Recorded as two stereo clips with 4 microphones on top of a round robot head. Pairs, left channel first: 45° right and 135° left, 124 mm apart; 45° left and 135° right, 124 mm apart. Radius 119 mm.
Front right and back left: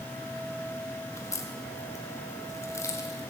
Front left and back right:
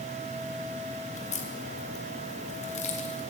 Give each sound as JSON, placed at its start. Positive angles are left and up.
{"t": 1.1, "sound": "a crack", "azimuth_deg": 20, "distance_m": 3.0}